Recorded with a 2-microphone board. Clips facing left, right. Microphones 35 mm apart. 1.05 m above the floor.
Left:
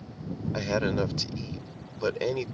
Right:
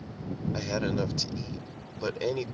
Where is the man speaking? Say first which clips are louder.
Left 3 dB; 15° left (ahead or behind).